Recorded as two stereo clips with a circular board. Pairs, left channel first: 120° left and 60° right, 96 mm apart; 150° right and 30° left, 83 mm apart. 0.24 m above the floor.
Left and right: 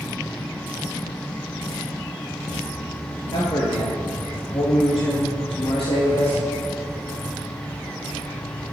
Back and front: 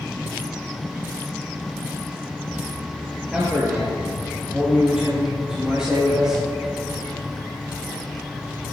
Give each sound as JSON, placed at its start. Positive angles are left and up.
{"t": 3.3, "sound": "a man speaking", "azimuth_deg": 115, "distance_m": 4.0}